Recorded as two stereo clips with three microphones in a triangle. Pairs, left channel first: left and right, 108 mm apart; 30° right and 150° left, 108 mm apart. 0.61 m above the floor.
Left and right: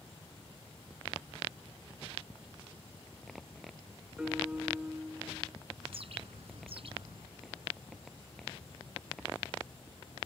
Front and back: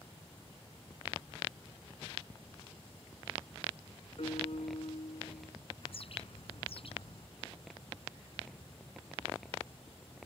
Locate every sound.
4.2 s a piano: 10° right
5.8 s a bird: 60° right